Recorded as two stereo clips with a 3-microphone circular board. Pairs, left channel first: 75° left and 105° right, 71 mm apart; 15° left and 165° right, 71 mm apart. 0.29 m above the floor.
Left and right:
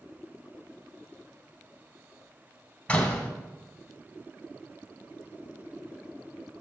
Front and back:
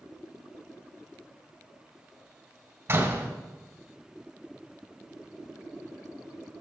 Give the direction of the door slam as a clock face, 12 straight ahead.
7 o'clock.